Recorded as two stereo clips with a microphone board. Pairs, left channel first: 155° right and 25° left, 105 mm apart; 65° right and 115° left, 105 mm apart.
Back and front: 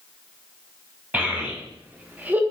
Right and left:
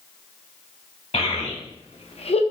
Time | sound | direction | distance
1.1 | a child speaking | 50° right | 1.1 m